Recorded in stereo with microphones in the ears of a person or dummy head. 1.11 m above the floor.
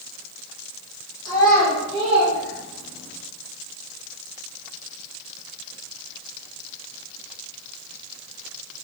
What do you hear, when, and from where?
1.2 s a child speaking: 25° left (ahead or behind), 0.7 m; by 3.2 s 80° right, 1.0 m